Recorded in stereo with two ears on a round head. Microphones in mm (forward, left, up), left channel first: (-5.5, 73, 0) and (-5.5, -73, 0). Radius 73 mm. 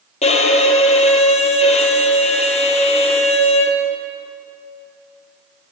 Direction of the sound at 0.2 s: 40° left (ahead or behind).